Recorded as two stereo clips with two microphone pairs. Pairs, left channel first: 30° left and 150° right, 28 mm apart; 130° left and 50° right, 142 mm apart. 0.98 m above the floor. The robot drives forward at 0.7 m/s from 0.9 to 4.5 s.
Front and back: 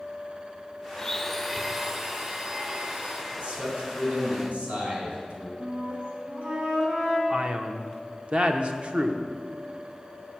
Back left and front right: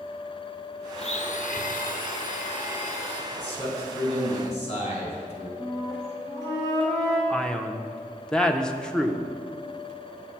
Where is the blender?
85° left, 0.7 m; by 3.2 s 160° left, 1.7 m.